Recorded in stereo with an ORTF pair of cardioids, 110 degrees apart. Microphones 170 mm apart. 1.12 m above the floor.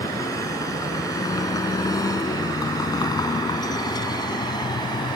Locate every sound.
0.0 s a vehicle: 20° left; by 5.2 s 25° left